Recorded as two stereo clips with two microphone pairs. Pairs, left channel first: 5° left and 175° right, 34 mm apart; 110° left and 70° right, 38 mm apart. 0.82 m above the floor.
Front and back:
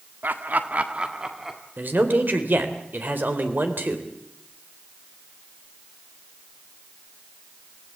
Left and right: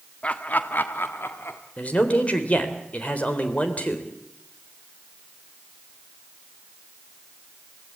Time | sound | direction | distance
0.2 | laughter | 165° left | 1.6 m
1.8 | a man speaking | 165° left | 3.5 m